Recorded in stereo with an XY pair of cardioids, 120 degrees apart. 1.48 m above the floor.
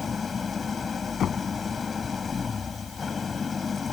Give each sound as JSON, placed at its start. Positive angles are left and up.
{"t": 0.0, "sound": "an engine running", "azimuth_deg": 25}
{"t": 1.2, "sound": "knocking", "azimuth_deg": 50}